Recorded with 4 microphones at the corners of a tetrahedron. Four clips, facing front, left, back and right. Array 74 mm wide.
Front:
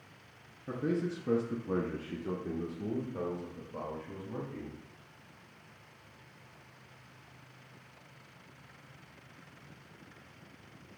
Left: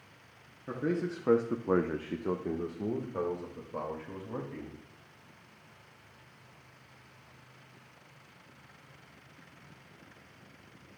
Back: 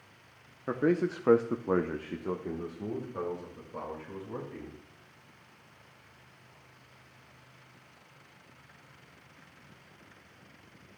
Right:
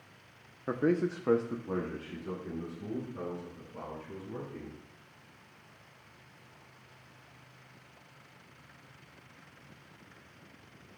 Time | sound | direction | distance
0.7 | a man speaking | 145° right | 0.8 m